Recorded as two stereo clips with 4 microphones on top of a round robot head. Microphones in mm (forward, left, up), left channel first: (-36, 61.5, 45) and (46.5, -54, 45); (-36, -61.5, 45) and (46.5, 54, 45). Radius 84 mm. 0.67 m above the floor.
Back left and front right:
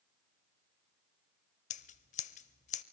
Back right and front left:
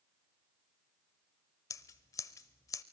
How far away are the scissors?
About 0.6 m.